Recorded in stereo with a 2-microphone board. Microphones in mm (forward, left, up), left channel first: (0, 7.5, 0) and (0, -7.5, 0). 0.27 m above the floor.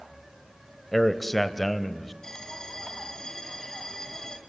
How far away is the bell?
About 2 m.